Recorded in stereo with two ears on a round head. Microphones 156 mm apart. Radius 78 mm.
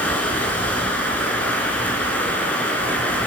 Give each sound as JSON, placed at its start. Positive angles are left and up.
{"t": 0.0, "sound": "running water", "side_deg": 10, "distance_m": 3.5}